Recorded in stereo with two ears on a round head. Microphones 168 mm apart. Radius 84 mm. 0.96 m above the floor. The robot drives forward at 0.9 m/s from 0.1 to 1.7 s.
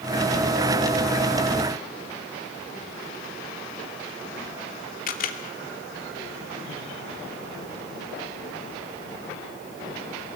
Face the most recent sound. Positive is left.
turn(degrees=50)  # may be behind; listen again after turning